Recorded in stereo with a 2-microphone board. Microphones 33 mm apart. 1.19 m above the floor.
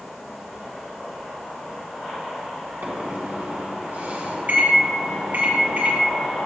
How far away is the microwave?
About 1.6 m.